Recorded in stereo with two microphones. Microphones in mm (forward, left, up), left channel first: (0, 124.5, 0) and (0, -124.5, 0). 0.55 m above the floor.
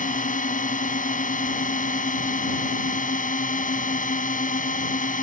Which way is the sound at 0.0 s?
30° left (ahead or behind).